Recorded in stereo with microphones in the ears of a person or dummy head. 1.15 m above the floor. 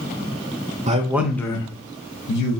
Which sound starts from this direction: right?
A man speaking, at 0.9 s.